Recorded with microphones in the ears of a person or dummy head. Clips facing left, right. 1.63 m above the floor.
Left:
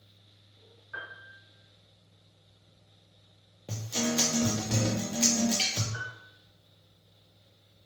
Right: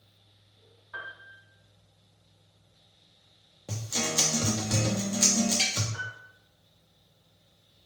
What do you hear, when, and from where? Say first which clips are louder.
0.9 s a piano: right 1 dB; 30° left (ahead or behind), 1.0 m
3.7 s a guitar: left 3 dB; centre (ahead or behind), 0.7 m
5.9 s a piano: even; 30° left (ahead or behind), 0.8 m